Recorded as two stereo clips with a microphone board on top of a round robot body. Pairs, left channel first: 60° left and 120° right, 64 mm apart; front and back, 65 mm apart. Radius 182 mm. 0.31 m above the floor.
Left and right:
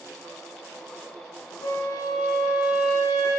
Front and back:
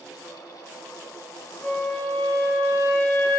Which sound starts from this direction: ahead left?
A flute, at 1.6 s.